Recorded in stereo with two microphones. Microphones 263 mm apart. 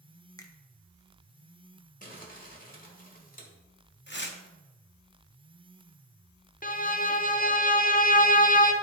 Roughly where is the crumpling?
Left.